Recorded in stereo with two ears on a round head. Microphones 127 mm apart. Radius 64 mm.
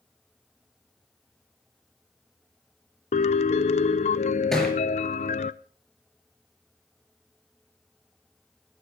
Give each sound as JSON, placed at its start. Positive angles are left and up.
{"t": 3.1, "sound": "a piano", "side_deg": 50, "distance_m": 0.6}
{"t": 4.5, "sound": "a thud", "side_deg": 5, "distance_m": 5.0}